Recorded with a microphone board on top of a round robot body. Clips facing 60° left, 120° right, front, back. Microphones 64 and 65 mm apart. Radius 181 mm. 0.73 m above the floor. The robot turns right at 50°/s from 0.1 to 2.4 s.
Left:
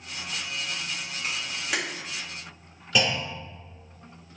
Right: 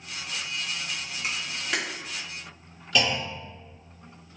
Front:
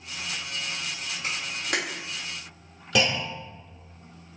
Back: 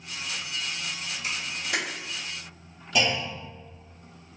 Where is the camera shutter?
45° right, 1.5 m; by 1.8 s 20° right, 1.5 m.